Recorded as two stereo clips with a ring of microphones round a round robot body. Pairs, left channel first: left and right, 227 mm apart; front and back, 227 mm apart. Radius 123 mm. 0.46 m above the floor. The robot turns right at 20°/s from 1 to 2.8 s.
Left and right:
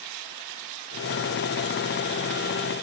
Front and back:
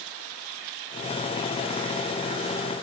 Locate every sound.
Only background noise.